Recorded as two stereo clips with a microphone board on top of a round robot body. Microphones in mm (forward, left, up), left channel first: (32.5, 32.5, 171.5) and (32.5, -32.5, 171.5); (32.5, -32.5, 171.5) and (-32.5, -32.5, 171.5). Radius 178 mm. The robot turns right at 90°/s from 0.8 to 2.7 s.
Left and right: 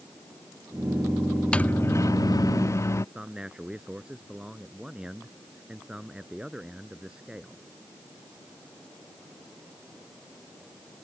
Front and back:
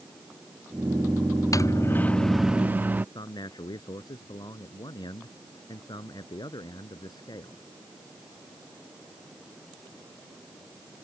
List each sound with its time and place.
1.5 s a microwave: 15° left; by 3.0 s 125° left
3.1 s a man speaking: 10° right